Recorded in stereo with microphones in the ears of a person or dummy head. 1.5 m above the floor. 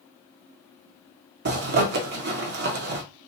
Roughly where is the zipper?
Right.